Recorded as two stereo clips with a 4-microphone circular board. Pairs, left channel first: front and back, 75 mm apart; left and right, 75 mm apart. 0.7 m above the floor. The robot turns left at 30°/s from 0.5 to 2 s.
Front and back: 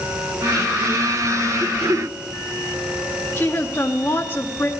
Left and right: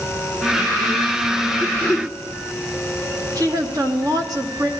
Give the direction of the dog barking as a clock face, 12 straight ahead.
No dog barking in this recording.